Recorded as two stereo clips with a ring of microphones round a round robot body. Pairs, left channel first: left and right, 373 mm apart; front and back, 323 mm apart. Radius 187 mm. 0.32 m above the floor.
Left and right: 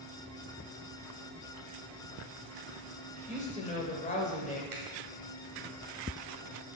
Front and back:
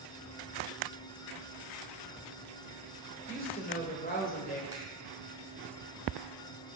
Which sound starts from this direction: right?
A finger snap, at 4.7 s.